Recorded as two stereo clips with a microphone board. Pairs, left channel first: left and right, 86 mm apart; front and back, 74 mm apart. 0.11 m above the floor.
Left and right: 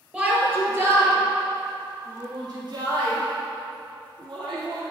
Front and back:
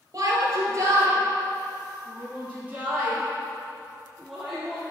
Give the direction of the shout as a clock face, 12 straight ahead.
5 o'clock.